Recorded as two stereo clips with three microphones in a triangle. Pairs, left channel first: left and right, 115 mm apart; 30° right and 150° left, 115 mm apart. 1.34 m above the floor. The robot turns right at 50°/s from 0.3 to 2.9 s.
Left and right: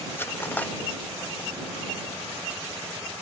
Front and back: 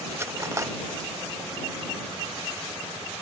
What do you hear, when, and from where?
0.2 s cutlery clinking: 130° left; by 0.7 s 150° left